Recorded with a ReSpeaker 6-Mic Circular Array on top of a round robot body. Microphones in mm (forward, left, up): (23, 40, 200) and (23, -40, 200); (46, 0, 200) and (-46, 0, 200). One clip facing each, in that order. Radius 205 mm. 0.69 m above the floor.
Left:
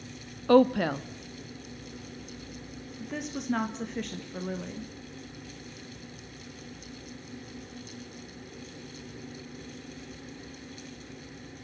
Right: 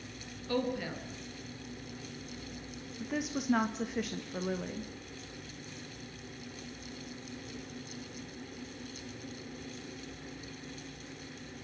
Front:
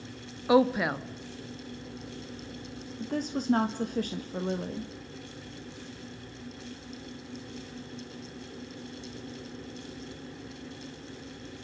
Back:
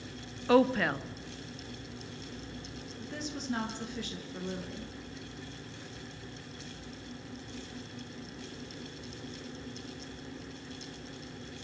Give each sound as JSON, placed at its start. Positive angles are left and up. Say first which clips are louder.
{"t": 0.5, "sound": "a woman speaking", "louder": "left 13 dB, front 2 dB", "azimuth_deg": 80, "distance_m": 1.5}
{"t": 3.0, "sound": "a woman speaking", "louder": "right 1 dB, front 9 dB", "azimuth_deg": -5, "distance_m": 1.5}